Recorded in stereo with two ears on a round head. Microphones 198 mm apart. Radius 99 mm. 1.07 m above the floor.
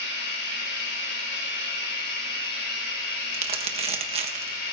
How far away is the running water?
About 3.5 m.